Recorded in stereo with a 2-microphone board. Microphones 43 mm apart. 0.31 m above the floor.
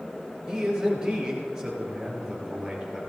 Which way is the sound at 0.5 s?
15° right (ahead or behind).